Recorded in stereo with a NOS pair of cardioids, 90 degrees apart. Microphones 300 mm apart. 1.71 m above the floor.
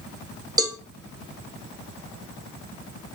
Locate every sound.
0.6 s a cowbell: 10° right, 1.1 m